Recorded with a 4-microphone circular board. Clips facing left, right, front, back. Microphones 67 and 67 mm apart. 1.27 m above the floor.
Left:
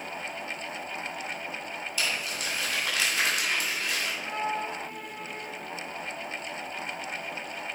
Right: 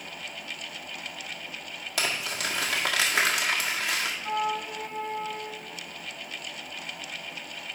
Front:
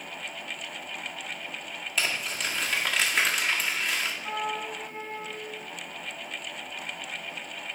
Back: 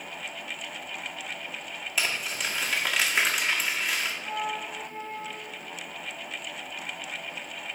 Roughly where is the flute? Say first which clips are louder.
Right 3 dB, even; ahead.